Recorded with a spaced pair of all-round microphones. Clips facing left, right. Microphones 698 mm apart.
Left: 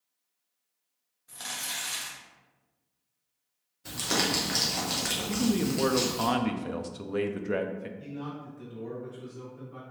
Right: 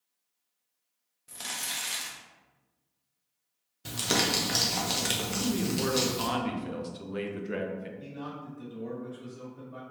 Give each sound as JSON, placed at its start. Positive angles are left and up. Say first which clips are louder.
{"t": 1.3, "sound": "crumpling", "louder": "right 1 dB", "side_deg": -60, "distance_m": 0.7}
{"t": 3.9, "sound": "crumpling", "louder": "right 1 dB", "side_deg": -60, "distance_m": 0.7}
{"t": 5.3, "sound": "a man speaking", "louder": "left 4 dB", "side_deg": 75, "distance_m": 0.5}
{"t": 8.0, "sound": "a man speaking", "louder": "left 2 dB", "side_deg": 35, "distance_m": 0.9}